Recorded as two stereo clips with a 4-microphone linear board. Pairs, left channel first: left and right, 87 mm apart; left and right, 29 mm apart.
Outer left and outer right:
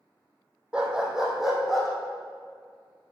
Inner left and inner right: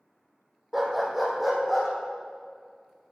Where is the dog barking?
10° right (ahead or behind), 1.9 m; by 1.9 s centre (ahead or behind), 3 m.